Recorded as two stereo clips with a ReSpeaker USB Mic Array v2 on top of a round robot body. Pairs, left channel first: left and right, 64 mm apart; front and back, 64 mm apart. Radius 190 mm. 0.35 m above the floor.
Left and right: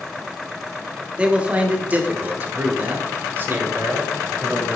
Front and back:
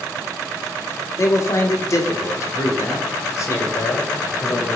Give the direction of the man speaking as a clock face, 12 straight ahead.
1 o'clock.